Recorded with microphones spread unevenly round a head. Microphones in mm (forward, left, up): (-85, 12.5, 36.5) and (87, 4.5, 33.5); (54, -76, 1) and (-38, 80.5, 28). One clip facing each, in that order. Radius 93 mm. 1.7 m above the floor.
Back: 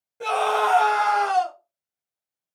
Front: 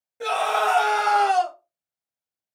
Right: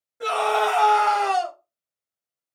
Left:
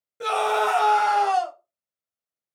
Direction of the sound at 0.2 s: 80° left.